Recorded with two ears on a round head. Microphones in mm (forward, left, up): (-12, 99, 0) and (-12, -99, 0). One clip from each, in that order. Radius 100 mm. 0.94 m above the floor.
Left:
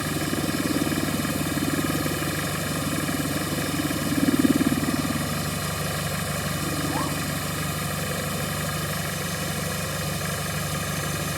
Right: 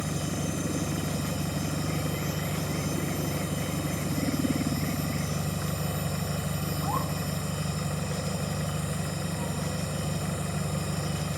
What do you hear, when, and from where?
0.0 s an engine running: 65° left (ahead or behind)